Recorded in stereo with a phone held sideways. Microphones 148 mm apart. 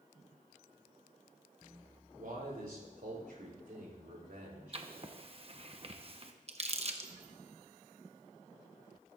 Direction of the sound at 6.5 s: 45° right (ahead or behind).